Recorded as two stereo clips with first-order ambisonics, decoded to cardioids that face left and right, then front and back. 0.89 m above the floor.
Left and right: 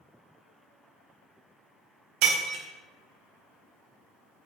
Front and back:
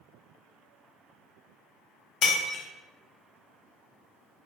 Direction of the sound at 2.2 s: 55° right.